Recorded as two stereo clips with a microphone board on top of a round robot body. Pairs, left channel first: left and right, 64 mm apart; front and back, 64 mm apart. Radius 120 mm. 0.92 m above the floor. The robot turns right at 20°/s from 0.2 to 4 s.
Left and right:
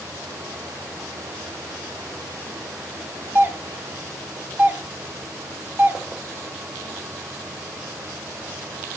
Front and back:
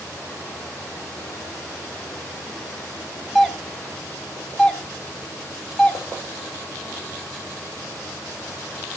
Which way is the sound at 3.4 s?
90° right.